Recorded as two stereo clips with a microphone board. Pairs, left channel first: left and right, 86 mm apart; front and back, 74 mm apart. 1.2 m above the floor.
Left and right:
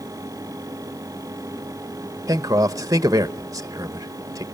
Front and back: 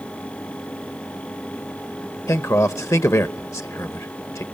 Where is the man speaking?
45° right, 0.9 m.